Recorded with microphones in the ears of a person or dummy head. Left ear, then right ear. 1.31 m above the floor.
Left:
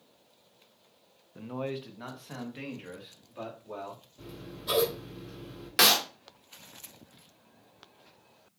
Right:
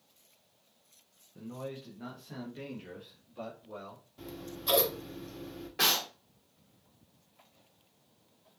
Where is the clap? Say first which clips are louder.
Left 6 dB; 60° left (ahead or behind), 1.0 m.